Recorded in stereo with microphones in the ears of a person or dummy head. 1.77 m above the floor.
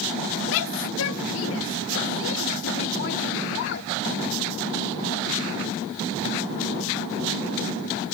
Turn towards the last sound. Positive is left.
turn(degrees=60)  # may be behind; listen again after turning